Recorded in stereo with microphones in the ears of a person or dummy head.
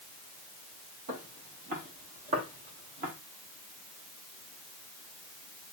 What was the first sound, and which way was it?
Footsteps, 40° right (ahead or behind).